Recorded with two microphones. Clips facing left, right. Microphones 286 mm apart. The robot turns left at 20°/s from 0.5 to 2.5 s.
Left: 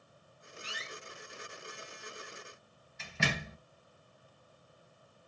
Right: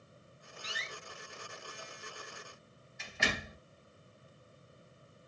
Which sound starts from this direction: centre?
A door slam, at 0.6 s.